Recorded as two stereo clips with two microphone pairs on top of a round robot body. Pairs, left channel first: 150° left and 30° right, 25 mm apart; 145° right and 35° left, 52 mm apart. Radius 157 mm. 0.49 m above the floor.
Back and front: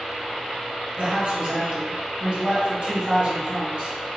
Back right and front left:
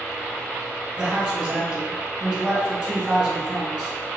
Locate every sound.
1.0 s a man speaking: 30° right, 1.4 m